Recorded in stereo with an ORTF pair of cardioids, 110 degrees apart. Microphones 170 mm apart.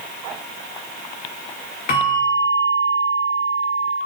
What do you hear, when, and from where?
1.9 s a bell: 60° left, 4 m